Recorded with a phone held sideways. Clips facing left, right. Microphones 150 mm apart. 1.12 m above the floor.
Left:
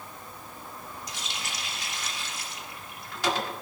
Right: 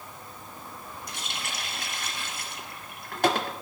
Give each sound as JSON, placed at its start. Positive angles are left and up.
{"t": 1.1, "sound": "a running tap", "side_deg": -55, "distance_m": 1.6}